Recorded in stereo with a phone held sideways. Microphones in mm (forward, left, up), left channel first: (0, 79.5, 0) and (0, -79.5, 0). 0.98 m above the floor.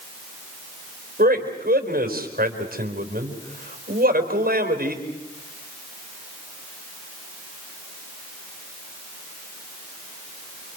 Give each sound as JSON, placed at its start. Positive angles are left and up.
{"t": 1.2, "sound": "a man speaking", "side_deg": -65, "distance_m": 4.0}